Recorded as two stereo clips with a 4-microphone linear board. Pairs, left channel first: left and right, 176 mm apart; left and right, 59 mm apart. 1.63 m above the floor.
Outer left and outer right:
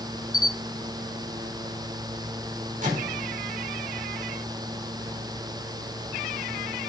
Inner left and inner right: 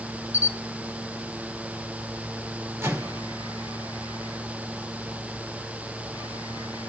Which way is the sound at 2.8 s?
45° right (ahead or behind).